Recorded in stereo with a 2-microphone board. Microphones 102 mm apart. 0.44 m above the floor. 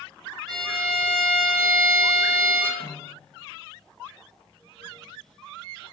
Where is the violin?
40° right (ahead or behind), 1.9 m.